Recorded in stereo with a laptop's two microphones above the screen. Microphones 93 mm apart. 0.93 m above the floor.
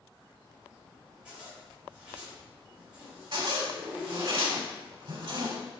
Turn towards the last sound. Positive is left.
turn(degrees=-55)  # may be behind; listen again after turning